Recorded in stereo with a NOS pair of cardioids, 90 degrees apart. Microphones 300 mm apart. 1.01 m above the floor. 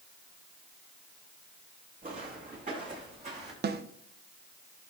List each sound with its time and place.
2.0 s footsteps: 30° right, 4.5 m; by 3.5 s 20° right, 4 m
3.6 s a snare drum: 35° right, 0.7 m